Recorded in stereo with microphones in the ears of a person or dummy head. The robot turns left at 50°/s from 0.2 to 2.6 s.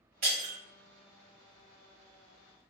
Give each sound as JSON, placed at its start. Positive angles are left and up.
{"t": 0.2, "sound": "breaking glass", "side_deg": -30, "distance_m": 1.2}